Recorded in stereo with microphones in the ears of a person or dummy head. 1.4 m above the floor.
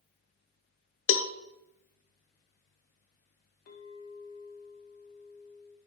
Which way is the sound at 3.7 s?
40° left (ahead or behind).